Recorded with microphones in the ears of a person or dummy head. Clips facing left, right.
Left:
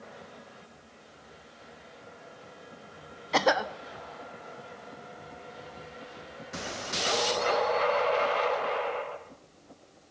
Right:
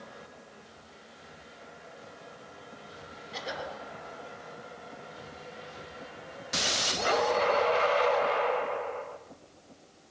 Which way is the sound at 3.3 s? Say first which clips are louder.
Left 12 dB; 90° left.